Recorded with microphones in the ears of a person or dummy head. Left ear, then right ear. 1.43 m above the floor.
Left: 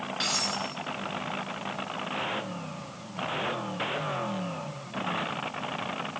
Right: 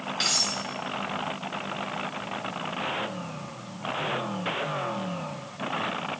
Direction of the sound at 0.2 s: 10° right (ahead or behind).